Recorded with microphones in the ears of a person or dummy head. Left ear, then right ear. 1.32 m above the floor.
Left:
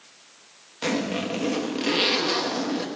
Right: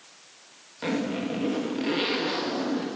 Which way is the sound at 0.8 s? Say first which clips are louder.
Left 3 dB; 25° left (ahead or behind).